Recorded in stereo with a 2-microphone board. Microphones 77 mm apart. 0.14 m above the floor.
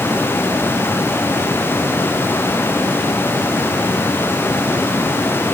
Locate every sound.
Only background noise.